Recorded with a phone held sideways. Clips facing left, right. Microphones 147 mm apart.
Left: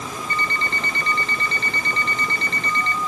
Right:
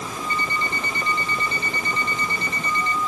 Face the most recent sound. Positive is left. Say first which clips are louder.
# even
turn(degrees=-15)  # may be behind; listen again after turning